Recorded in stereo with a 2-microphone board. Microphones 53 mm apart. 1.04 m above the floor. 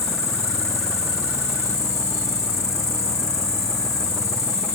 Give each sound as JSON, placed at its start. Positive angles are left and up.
{"t": 0.0, "sound": "an insect", "side_deg": 85}